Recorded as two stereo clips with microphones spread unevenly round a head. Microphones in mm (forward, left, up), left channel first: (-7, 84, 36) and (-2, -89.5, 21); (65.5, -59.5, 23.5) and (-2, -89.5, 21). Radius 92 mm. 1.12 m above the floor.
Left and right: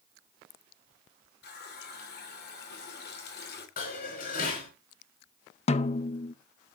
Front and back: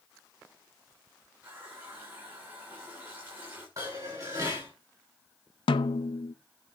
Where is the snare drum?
35° left, 0.6 m.